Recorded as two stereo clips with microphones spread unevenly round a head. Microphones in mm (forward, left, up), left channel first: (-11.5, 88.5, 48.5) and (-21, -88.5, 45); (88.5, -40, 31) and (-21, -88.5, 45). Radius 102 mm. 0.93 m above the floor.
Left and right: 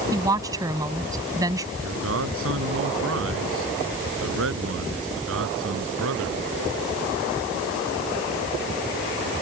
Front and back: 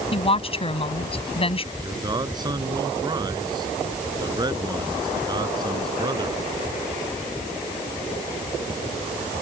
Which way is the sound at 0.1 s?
20° right.